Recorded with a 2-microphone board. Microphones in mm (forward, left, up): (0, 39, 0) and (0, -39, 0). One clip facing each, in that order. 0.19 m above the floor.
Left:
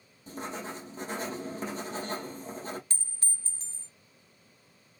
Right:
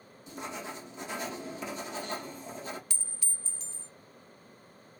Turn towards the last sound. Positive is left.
turn(degrees=40)  # may be behind; listen again after turning